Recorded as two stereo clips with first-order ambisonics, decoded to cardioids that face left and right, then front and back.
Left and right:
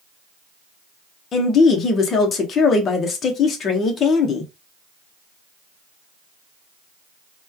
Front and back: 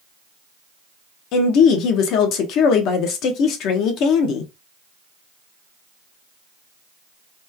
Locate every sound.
1.3 s a woman speaking: 30° left, 0.8 m